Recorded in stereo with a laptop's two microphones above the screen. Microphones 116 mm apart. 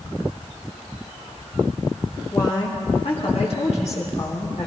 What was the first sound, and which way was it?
A woman speaking, 25° left (ahead or behind).